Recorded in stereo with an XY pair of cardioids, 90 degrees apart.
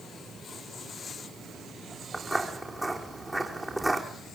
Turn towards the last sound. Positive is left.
turn(degrees=-10)